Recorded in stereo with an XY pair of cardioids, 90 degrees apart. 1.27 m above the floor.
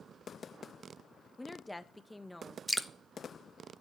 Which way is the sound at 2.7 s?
Straight ahead.